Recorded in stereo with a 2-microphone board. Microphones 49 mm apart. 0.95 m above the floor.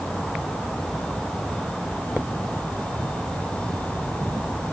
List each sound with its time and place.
Only background noise.